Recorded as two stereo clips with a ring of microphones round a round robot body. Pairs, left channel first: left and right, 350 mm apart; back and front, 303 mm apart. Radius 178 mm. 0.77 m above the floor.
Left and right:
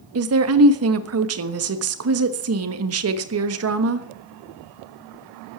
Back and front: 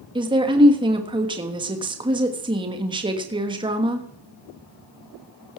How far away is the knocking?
I don't hear knocking.